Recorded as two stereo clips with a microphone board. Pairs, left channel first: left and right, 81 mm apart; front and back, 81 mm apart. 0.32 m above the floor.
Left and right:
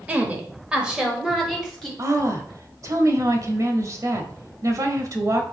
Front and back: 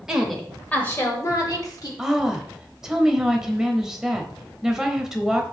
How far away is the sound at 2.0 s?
About 1.1 m.